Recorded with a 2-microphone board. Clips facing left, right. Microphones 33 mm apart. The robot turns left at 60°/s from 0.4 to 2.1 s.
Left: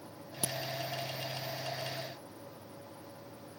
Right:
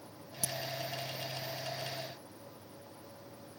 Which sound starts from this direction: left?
A crack, at 0.4 s.